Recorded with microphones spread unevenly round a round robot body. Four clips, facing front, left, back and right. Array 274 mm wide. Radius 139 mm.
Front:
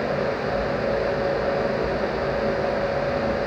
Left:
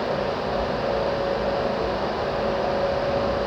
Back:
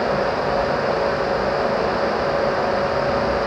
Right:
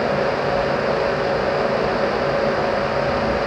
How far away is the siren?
I don't hear a siren.